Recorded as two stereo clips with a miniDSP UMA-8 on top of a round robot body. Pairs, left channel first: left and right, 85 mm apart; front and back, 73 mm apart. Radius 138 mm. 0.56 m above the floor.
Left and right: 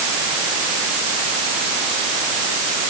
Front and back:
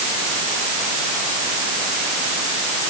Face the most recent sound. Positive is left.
No sound to turn to.